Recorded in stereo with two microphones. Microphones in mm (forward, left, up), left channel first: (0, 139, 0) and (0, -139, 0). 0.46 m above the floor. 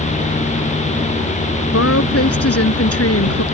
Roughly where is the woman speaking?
Left.